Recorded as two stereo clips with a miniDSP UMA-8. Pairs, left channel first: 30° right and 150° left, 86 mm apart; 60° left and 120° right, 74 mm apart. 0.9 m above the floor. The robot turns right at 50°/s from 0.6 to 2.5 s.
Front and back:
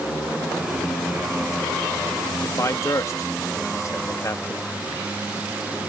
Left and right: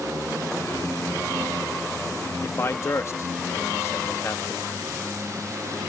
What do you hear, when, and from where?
2.4 s a man speaking: 15° left